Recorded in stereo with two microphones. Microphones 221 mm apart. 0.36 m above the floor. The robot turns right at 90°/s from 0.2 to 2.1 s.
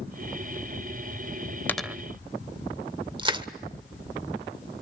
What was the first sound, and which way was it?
A dropped coin, 10° left (ahead or behind).